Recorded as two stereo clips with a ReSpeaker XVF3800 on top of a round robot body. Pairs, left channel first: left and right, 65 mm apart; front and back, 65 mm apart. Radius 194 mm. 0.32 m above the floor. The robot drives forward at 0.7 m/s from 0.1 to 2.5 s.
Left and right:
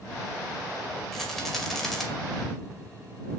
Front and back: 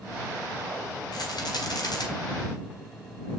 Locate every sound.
1.1 s a rattle: 5° left, 5 m